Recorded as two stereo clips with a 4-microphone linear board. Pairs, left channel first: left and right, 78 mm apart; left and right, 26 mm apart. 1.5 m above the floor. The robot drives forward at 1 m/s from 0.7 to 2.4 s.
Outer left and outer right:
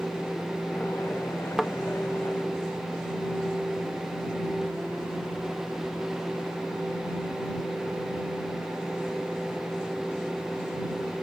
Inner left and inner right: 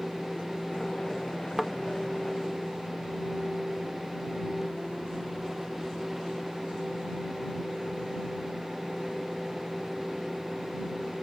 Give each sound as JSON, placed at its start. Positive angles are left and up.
{"t": 1.6, "sound": "a thud", "side_deg": 0}